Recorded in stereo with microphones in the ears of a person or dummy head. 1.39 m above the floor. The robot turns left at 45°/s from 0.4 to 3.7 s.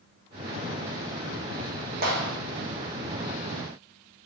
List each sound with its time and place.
2.0 s a clap: 50° right (ahead or behind), 1.1 m; by 2.4 s 65° right (ahead or behind), 1.1 m